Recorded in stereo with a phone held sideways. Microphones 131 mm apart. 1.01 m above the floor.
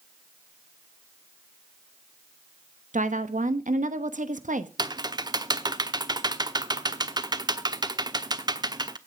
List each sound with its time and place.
2.9 s a woman speaking: 75° right (ahead or behind), 1.2 m
4.8 s typing on a keyboard: 30° right (ahead or behind), 1.0 m